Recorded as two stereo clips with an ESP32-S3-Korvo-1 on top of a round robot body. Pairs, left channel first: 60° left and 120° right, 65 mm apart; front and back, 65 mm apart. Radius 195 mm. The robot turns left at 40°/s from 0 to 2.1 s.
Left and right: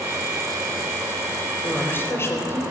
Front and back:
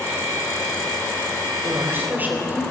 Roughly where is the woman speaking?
Behind left.